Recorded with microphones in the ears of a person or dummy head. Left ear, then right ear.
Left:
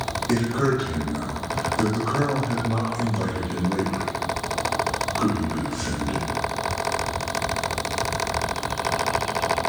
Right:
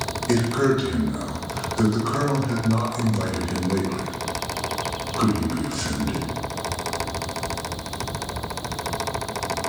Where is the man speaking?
70° right (ahead or behind), 1.3 m.